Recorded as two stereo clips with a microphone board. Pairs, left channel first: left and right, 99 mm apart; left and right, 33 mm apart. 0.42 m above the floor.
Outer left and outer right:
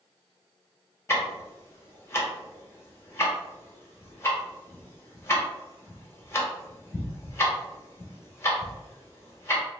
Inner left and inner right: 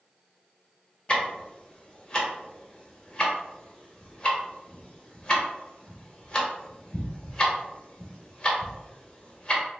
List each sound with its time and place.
1.1 s ticking: 25° left (ahead or behind), 0.7 m